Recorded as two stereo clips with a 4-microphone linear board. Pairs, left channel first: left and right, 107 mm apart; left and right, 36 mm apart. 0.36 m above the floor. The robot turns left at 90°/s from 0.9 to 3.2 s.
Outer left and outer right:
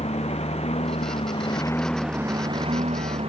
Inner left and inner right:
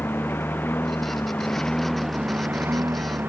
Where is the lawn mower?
100° left; by 3.3 s 110° right.